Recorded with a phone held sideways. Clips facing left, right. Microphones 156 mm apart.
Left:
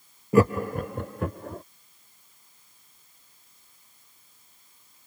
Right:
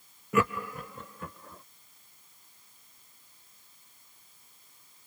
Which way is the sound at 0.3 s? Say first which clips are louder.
Left 8 dB; 35° left (ahead or behind).